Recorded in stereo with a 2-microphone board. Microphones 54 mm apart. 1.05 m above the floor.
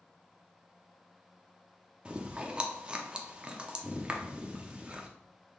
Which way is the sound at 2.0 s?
20° right (ahead or behind).